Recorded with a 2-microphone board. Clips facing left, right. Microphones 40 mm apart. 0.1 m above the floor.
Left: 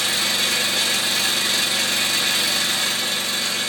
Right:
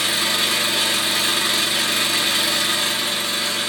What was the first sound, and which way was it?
An engine running, 20° right (ahead or behind).